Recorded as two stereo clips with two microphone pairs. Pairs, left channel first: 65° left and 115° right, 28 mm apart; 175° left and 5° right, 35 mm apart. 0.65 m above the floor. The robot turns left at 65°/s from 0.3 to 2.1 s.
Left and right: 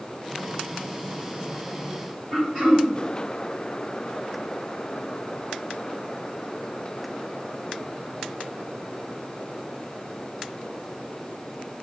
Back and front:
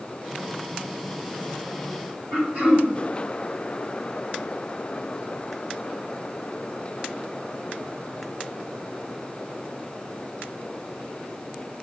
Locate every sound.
2.3 s throat clearing: 30° right, 1.8 m